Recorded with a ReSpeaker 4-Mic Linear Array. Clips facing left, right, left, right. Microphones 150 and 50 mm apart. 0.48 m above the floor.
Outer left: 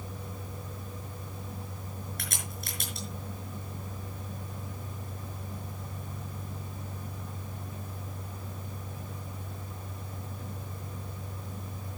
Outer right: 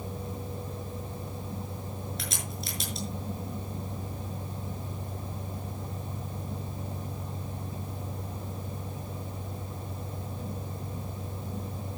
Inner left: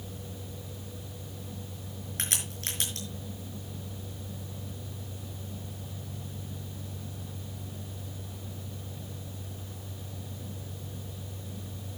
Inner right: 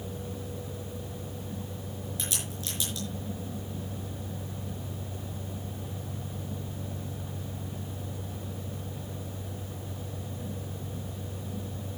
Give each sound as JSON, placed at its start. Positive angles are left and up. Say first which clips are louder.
{"t": 2.2, "sound": "a crack", "louder": "outer right 3 dB, inner left 4 dB", "side_deg": 60, "distance_m": 5.5}